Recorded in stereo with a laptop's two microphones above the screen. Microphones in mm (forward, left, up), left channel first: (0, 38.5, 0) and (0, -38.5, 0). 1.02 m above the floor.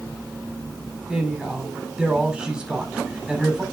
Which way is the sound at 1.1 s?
10° right (ahead or behind).